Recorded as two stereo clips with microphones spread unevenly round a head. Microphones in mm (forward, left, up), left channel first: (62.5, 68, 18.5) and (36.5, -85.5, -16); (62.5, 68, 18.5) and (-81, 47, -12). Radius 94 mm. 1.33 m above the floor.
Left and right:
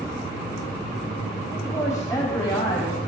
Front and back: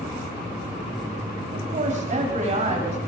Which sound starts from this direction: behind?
A woman speaking, at 1.5 s.